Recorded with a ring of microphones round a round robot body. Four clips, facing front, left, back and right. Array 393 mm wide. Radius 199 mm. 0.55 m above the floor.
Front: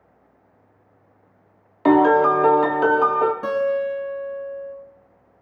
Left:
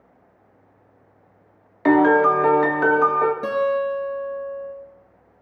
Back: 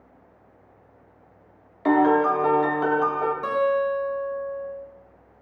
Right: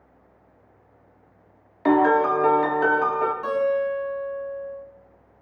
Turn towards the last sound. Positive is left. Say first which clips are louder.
# left 1 dB, front 1 dB
turn(degrees=50)